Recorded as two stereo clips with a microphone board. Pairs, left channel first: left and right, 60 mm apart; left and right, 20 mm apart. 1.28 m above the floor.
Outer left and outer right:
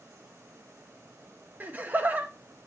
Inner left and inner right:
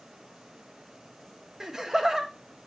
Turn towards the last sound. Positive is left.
turn(degrees=-30)  # may be behind; listen again after turning